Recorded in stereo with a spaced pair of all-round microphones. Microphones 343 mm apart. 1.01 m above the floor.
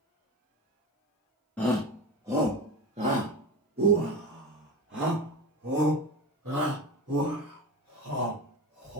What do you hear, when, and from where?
1.6 s a shout: 5° left (ahead or behind), 1.5 m; by 9.0 s 45° right (ahead or behind), 5.5 m